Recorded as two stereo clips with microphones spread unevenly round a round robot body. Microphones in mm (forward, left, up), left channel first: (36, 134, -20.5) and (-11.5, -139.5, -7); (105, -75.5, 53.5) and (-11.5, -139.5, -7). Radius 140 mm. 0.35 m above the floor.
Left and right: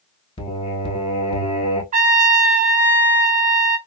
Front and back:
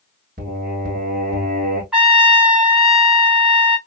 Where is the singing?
150° left, 0.8 m.